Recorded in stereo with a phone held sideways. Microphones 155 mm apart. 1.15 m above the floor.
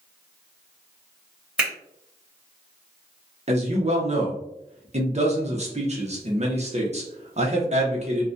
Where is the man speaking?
45° right (ahead or behind), 0.7 m.